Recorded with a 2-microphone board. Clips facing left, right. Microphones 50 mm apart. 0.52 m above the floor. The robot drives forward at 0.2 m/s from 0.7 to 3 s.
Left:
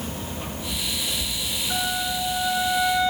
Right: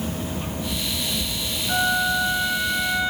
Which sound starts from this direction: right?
A flute, at 1.7 s.